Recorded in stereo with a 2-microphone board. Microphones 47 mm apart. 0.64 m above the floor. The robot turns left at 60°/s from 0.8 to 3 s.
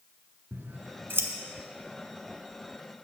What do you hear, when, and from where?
0.5 s scissors: 50° right (ahead or behind), 0.7 m